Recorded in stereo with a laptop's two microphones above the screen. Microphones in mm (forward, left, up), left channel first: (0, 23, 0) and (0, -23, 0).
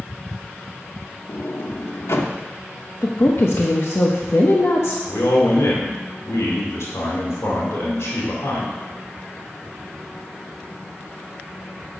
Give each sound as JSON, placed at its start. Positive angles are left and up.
{"t": 1.3, "sound": "a sliding door", "side_deg": 70, "distance_m": 0.9}
{"t": 3.0, "sound": "a woman speaking", "side_deg": 65, "distance_m": 0.9}
{"t": 5.1, "sound": "a man speaking", "side_deg": 80, "distance_m": 3.0}